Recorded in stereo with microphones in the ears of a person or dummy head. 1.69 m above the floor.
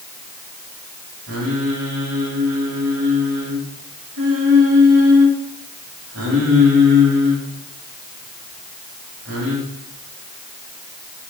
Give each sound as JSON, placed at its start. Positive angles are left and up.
{"t": 1.3, "sound": "singing", "side_deg": -80, "distance_m": 3.0}